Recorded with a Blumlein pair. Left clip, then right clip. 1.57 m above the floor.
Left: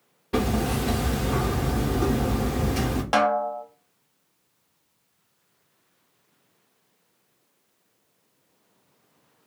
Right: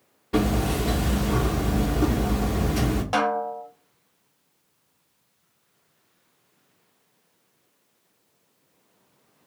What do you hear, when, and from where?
0.3 s hammering: 10° left, 0.8 m
3.1 s a snare drum: 20° left, 0.5 m